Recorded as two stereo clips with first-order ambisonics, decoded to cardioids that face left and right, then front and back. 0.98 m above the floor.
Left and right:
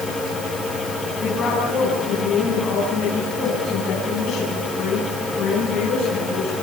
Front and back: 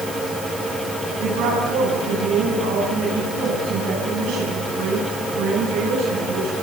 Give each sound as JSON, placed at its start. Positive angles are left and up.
{"t": 1.2, "sound": "a woman speaking", "azimuth_deg": 150, "distance_m": 9.5}